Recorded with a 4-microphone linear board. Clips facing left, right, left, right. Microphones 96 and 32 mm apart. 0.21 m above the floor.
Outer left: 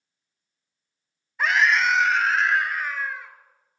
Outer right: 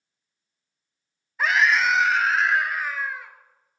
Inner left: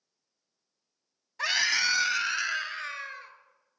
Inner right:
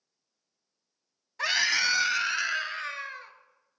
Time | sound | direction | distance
1.4 | a scream | centre (ahead or behind) | 1.2 m